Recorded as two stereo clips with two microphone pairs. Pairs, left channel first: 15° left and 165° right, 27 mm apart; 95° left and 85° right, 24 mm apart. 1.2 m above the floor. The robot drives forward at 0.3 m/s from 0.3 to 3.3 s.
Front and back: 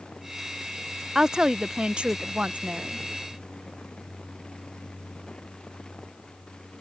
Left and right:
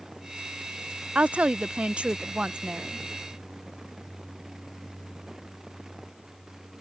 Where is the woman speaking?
95° right; by 3.0 s 140° right.